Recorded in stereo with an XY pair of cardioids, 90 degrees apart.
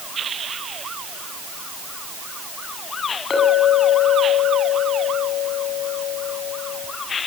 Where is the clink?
45° left, 7 m.